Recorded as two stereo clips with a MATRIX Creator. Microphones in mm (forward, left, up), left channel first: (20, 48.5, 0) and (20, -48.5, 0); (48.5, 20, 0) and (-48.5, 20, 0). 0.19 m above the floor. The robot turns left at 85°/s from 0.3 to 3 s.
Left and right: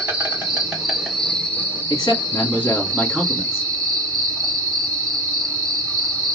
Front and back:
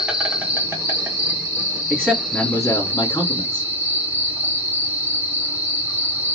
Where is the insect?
120° right, 1.8 m; by 6.4 s 10° left, 1.8 m.